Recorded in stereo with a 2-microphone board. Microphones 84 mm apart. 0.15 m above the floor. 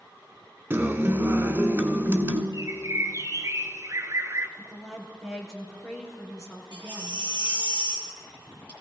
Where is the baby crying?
70° right (ahead or behind), 2.5 m.